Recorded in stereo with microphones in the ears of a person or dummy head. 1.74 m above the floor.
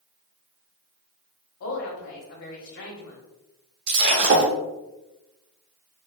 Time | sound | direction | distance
1.6 | a woman speaking | 75° left (ahead or behind) | 1.0 m
3.9 | breaking glass | 40° right (ahead or behind) | 1.1 m